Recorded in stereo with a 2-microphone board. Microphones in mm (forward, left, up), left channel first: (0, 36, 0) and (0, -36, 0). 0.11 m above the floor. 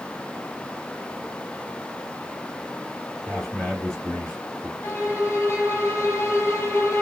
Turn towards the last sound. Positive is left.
turn(degrees=35)  # may be behind; listen again after turning